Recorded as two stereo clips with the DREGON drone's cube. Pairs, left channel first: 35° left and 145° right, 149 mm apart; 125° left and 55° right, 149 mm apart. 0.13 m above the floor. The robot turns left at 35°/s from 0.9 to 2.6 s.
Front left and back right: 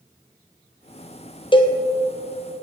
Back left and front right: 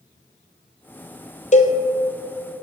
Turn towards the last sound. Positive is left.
turn(degrees=55)